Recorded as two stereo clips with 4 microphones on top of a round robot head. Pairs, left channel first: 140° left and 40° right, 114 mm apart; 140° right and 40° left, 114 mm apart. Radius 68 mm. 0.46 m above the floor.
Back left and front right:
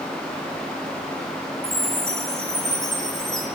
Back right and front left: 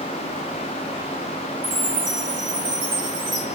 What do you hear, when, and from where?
1.6 s a chime: 55° left, 6 m